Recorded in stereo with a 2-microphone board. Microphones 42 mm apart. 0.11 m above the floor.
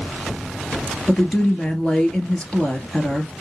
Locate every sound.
1.1 s a woman speaking: 20° left (ahead or behind), 1.7 m